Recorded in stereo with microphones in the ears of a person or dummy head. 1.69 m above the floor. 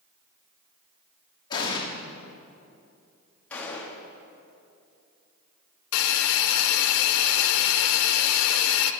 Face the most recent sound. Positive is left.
turn(degrees=75)  # may be behind; listen again after turning